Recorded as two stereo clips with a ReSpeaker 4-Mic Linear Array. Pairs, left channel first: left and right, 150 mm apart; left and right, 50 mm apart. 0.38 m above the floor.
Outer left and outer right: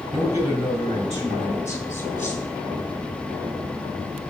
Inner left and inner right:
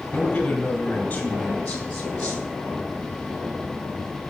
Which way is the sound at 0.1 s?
25° left (ahead or behind).